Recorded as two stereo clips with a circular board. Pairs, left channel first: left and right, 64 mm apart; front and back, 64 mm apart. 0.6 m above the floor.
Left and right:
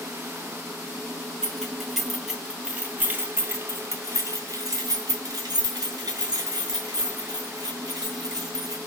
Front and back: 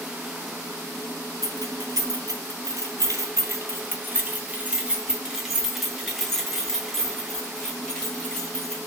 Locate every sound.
1.4 s keys jangling: 170° left, 1.9 m; by 8.8 s 75° right, 4 m